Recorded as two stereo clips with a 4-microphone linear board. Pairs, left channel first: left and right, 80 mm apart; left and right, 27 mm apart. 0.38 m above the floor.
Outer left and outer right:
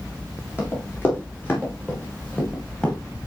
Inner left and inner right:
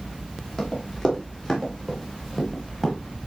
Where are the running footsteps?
30° left (ahead or behind), 7 m; by 3.0 s 15° left (ahead or behind), 7 m.